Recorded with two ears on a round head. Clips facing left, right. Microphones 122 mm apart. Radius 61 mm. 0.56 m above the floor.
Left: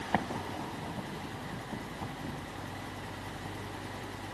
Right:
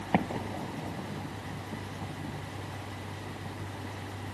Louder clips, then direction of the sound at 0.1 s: Right 4 dB; 20° right (ahead or behind).